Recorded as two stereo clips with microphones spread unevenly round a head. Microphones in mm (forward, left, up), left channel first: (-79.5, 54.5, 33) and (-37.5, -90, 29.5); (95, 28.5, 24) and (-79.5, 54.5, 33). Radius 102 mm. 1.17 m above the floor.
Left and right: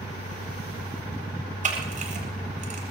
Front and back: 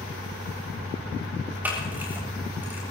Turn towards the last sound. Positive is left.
turn(degrees=-105)